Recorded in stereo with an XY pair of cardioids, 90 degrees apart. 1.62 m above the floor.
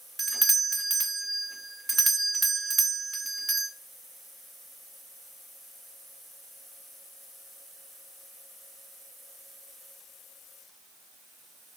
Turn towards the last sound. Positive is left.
turn(degrees=-20)